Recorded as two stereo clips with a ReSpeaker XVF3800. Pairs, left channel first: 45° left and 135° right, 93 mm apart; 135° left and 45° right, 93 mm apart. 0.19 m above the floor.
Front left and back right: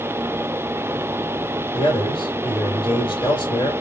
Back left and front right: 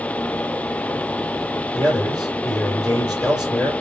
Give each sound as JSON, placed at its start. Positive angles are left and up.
{"t": 1.7, "sound": "a man speaking", "azimuth_deg": 65, "distance_m": 3.0}